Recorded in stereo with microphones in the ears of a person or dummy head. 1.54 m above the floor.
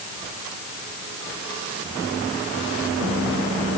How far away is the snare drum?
No snare drum in this recording.